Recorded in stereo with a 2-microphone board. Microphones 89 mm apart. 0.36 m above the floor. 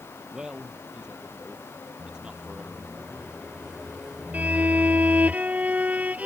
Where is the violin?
15° right (ahead or behind).